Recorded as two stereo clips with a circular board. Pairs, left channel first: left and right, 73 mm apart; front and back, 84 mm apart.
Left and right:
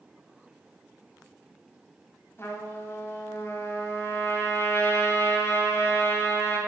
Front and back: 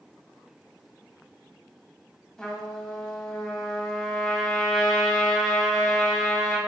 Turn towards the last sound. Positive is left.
turn(degrees=75)